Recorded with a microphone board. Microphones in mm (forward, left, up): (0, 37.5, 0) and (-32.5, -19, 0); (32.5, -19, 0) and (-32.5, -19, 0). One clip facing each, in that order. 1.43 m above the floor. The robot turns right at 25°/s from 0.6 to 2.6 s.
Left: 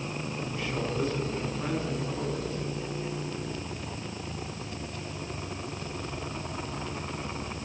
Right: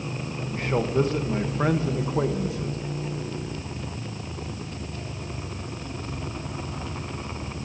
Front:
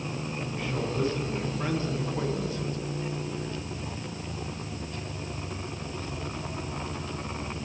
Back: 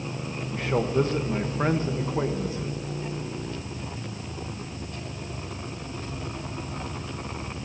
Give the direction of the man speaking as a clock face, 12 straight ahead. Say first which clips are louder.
Right 9 dB, back 8 dB; 5 o'clock.